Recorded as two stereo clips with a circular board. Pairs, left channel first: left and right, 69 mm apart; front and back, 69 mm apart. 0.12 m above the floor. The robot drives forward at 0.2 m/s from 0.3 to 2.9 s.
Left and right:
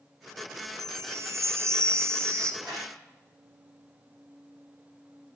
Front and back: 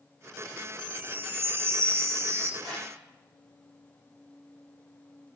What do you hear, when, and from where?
0.8 s a chime: 125° right, 0.9 m; by 2.5 s 140° right, 1.1 m
2.6 s a whoosh: straight behind, 6 m